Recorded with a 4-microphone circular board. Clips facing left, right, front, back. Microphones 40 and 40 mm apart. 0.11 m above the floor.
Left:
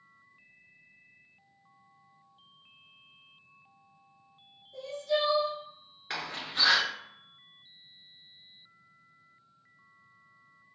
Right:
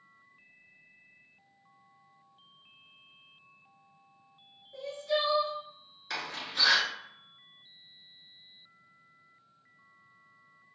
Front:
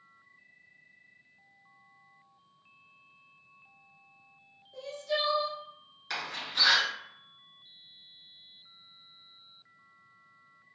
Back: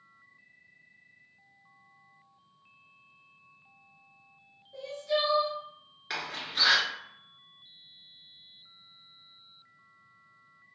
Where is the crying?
115° right, 1.5 m.